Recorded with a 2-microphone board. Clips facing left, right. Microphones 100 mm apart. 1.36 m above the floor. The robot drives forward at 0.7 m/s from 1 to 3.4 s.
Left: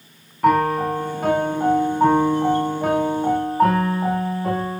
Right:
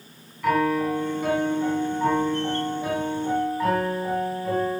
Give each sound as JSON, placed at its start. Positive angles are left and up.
{"t": 0.4, "sound": "a piano", "side_deg": 50, "distance_m": 2.5}